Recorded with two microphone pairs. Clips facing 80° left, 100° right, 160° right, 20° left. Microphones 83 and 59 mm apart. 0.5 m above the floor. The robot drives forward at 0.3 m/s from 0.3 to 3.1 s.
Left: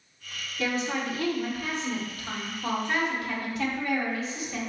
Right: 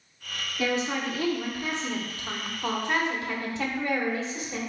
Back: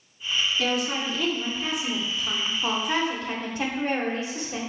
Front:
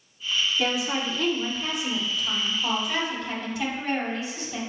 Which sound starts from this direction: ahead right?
A woman speaking, at 0.6 s.